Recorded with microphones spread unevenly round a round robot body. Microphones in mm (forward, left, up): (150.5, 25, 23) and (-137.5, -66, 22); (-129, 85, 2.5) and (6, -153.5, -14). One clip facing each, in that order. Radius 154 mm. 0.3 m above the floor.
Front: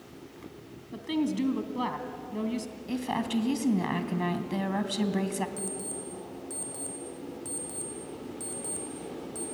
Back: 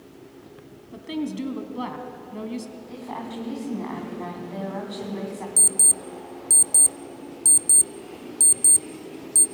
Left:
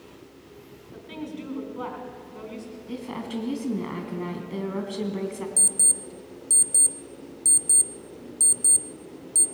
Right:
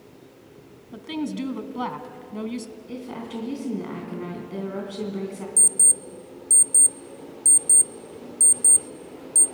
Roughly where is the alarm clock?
Behind right.